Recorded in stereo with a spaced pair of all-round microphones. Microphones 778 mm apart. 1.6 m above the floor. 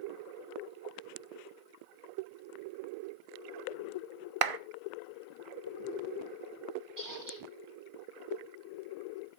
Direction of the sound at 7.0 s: 75° right (ahead or behind).